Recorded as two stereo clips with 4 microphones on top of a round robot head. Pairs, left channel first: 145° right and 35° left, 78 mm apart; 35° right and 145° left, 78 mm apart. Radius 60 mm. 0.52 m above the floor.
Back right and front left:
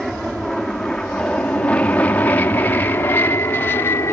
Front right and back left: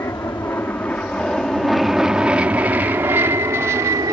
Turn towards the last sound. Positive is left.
turn(degrees=170)